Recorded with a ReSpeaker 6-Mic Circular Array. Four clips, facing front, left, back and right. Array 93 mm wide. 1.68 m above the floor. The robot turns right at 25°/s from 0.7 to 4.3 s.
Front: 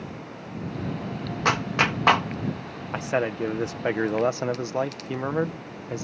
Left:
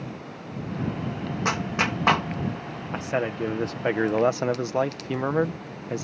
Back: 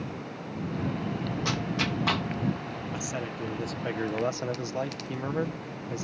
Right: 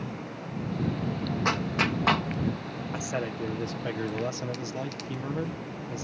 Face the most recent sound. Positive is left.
turn(degrees=60)